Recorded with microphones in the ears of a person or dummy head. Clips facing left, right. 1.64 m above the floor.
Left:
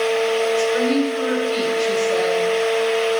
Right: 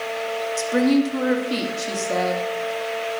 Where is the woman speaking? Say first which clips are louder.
Even; 70° right (ahead or behind), 2.5 m.